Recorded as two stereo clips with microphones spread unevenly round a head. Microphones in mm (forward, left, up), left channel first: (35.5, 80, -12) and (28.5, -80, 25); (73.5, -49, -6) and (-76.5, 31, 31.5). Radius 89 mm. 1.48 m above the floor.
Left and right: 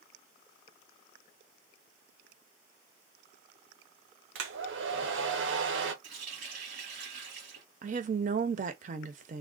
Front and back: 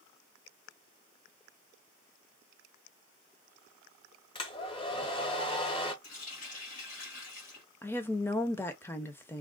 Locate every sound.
4.3 s a hair dryer: 90° right, 0.8 m
6.0 s a running tap: 75° right, 1.7 m
7.8 s a woman speaking: 110° right, 0.6 m